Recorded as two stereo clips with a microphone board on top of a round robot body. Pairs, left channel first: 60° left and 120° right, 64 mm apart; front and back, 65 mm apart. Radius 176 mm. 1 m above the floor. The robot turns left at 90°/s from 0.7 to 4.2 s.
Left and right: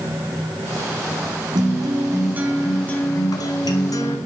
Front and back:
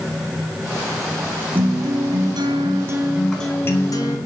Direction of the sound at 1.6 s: 115° right.